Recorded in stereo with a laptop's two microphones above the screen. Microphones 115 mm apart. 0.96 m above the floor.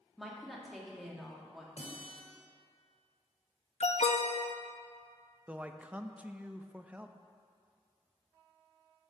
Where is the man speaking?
10° right (ahead or behind), 0.6 m.